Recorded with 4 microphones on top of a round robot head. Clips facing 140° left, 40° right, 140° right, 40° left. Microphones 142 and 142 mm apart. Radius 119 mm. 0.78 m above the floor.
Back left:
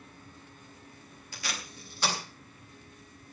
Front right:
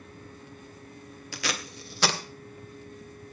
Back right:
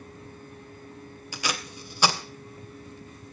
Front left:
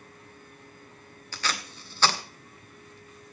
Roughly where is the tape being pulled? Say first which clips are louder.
Front right 6 dB, back right 1 dB; ahead right.